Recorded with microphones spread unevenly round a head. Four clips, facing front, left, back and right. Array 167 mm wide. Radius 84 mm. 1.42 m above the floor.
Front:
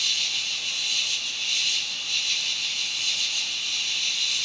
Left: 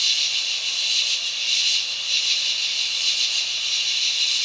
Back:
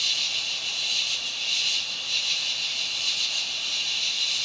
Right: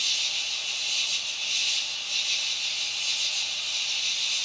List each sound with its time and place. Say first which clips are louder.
0.0 s an insect: left 4 dB, even; 90° left, 6 m